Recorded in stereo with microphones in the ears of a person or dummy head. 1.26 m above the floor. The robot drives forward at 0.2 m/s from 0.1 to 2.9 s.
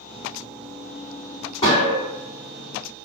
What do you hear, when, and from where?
1.6 s a gunshot: 20° left (ahead or behind), 1.5 m